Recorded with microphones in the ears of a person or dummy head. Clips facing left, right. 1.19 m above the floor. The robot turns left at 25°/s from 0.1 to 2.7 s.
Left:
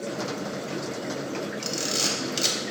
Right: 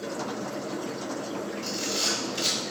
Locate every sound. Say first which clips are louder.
1.6 s a camera shutter: left 1 dB; 85° left, 1.1 m; by 2.6 s 70° left (ahead or behind), 1.1 m